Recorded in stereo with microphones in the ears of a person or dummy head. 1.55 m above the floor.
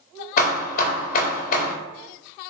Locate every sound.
0.4 s hammering: 45° left (ahead or behind), 0.7 m